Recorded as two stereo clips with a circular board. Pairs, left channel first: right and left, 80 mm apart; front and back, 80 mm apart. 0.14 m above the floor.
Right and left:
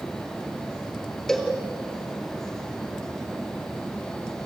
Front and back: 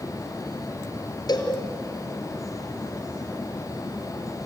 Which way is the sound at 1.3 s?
5° right.